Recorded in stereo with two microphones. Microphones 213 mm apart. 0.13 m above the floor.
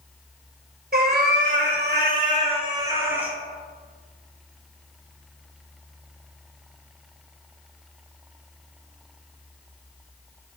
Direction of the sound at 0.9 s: 50° right (ahead or behind).